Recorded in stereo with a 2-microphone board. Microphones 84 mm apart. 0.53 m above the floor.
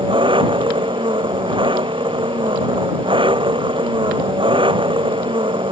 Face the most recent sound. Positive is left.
turn(degrees=-90)